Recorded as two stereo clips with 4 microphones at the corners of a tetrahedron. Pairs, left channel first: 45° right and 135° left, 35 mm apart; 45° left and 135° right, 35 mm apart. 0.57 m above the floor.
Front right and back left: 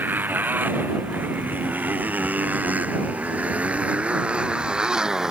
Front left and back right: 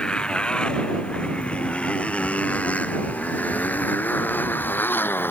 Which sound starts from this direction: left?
A motorcycle, at 0.0 s.